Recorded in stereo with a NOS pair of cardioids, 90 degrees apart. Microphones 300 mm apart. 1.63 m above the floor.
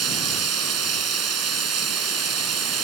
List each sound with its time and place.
0.0 s running water: 55° right